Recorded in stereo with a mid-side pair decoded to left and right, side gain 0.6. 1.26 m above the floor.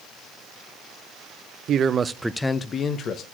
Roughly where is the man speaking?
Ahead right.